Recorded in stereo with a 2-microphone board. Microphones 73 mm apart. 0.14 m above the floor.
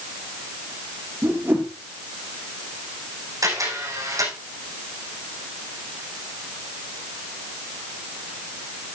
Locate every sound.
1.2 s a whoosh: 30° right (ahead or behind), 3.5 m
3.4 s a camera shutter: 55° right (ahead or behind), 7.5 m